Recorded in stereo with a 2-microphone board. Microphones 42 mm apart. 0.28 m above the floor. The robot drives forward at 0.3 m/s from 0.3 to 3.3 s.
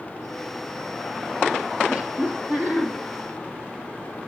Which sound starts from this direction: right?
Laughter, at 1.9 s.